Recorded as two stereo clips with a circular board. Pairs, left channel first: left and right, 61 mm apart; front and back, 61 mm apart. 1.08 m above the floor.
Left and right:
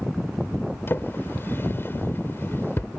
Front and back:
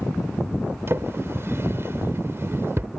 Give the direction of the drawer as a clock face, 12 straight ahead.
7 o'clock.